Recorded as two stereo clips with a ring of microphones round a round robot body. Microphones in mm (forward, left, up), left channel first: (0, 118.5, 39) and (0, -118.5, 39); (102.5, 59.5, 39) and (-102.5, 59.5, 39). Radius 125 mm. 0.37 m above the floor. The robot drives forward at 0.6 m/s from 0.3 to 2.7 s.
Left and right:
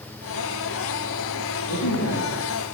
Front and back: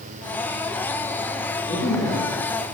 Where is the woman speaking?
65° left, 7.5 m.